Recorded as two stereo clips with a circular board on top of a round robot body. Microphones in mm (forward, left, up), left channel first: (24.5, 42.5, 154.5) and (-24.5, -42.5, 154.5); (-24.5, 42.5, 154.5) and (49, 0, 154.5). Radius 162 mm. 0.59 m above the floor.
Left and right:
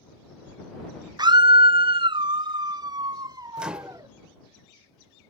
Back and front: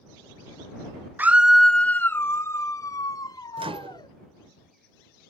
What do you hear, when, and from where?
1.2 s a scream: 90° right; by 4.1 s 170° right
3.6 s a microwave: 40° right